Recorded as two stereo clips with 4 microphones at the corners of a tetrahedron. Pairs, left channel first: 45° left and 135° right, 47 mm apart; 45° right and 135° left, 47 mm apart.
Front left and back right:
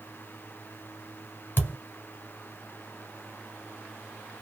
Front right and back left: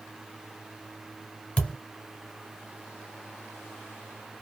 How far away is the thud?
About 1.2 m.